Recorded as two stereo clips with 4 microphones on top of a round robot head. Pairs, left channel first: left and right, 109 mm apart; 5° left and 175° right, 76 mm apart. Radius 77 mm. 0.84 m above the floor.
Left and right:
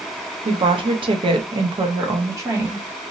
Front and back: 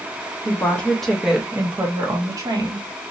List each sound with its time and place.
0.5 s a woman speaking: 60° right, 0.9 m; by 2.9 s 160° right, 1.0 m